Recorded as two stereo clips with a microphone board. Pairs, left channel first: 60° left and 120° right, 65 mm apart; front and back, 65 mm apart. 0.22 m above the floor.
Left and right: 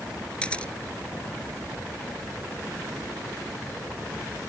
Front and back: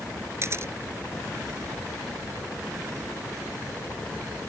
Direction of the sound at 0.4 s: 135° left.